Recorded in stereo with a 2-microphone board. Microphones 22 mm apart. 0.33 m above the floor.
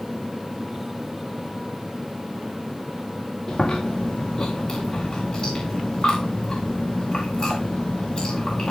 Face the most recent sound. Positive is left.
turn(degrees=45)  # may be behind; listen again after turning